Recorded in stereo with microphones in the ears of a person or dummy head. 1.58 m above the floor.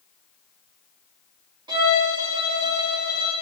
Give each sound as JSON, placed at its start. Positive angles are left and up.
{"t": 1.7, "sound": "a violin", "side_deg": -25, "distance_m": 1.3}